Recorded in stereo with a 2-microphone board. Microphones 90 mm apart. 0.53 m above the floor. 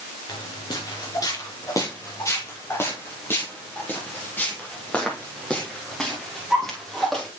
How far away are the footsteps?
About 3 m.